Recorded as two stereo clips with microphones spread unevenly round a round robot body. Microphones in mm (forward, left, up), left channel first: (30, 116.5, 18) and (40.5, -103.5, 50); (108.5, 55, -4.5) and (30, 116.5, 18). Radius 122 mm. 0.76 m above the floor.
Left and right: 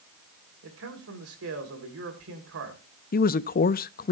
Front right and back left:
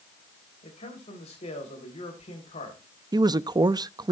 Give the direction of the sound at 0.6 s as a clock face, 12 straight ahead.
2 o'clock.